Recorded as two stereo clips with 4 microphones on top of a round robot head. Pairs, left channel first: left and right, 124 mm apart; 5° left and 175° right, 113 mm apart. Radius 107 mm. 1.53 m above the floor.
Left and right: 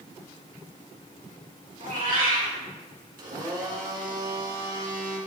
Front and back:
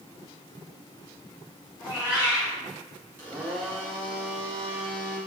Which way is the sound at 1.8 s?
105° right.